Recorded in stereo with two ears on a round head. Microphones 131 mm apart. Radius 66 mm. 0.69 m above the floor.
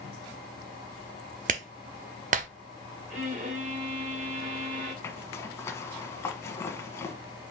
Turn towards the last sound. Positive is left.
turn(degrees=20)  # may be behind; listen again after turning